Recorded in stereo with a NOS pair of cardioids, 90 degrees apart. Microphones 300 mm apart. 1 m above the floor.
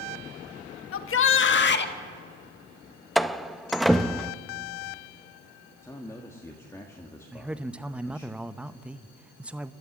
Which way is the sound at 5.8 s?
10° left.